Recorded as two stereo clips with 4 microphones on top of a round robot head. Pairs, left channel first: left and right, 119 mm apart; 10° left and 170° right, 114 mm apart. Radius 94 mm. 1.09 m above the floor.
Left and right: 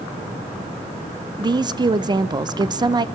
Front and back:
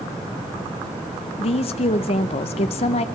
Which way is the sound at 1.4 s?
35° right.